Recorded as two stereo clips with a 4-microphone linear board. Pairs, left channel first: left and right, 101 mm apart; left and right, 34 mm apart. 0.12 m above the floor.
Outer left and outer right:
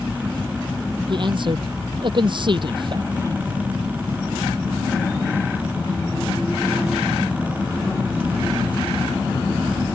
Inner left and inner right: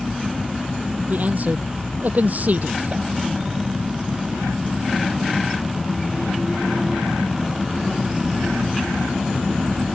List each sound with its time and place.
1.1 s a man speaking: 50° right (ahead or behind)